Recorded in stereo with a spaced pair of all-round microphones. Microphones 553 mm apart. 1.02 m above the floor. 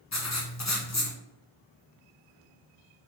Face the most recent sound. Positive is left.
turn(degrees=30)  # may be behind; listen again after turning